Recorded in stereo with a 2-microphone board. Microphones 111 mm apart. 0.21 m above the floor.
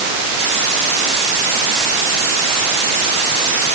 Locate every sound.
Only background noise.